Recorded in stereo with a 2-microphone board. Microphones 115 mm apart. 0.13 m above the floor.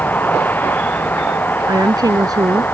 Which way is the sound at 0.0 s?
15° left (ahead or behind).